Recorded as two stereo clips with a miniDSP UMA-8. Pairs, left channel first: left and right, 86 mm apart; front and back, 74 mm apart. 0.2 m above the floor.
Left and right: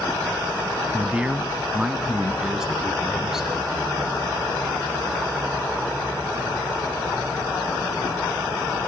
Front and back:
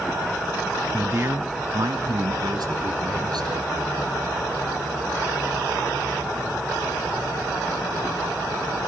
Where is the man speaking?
150° right, 1.2 m; by 3.7 s 175° right, 3.5 m.